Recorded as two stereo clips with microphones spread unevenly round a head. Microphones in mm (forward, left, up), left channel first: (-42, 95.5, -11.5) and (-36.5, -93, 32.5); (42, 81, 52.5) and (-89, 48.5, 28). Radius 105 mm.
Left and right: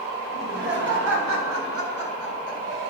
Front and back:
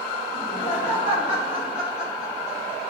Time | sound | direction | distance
0.3 | laughter | 40° right | 2.5 m